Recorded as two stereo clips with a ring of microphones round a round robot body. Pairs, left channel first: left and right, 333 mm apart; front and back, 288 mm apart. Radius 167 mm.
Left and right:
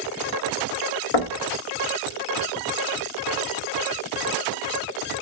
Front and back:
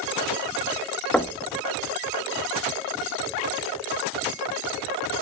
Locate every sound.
1.1 s knocking: 85° left, 0.9 m